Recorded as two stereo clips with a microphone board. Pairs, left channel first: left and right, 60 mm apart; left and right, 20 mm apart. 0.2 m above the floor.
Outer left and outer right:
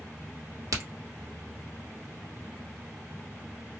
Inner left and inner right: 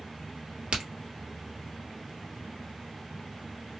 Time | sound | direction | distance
0.7 | a crack | 80° right | 1.3 m